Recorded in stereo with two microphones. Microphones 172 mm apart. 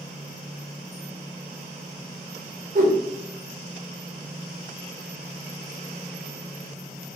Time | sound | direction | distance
2.8 | a whoosh | 55° right (ahead or behind) | 0.6 m